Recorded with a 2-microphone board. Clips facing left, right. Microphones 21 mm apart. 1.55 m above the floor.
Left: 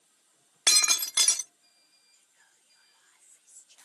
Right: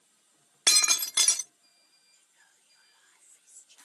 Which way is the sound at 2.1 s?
5° right (ahead or behind).